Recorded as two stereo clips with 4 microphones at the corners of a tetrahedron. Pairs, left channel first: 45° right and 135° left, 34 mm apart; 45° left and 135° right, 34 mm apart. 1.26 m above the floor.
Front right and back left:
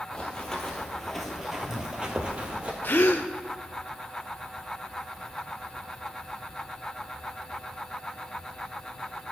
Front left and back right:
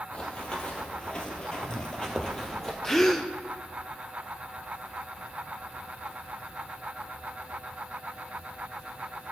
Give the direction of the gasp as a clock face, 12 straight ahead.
1 o'clock.